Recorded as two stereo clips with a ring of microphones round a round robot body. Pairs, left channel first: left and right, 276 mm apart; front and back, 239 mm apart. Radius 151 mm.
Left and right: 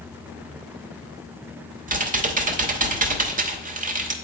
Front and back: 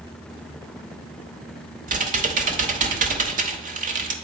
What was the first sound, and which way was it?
Typing on a keyboard, 140° right.